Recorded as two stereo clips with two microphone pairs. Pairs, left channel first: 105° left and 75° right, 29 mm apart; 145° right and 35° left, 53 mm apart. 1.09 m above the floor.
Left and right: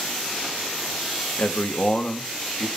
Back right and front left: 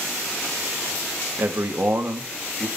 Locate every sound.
1.4 s a man speaking: 85° left, 1.6 m; by 2.7 s 55° left, 1.7 m